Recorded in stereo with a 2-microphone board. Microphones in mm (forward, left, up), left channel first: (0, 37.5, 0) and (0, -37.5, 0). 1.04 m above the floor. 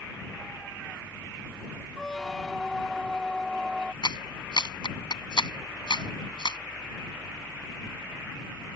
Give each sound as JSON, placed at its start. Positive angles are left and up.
{"t": 2.0, "sound": "a squeak", "side_deg": 5}
{"t": 4.0, "sound": "a clap", "side_deg": 85}